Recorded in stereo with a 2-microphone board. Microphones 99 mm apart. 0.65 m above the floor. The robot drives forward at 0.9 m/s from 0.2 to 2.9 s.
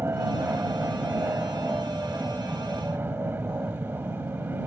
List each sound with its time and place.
0.0 s an aircraft: 25° right (ahead or behind); by 4.7 s 20° right (ahead or behind)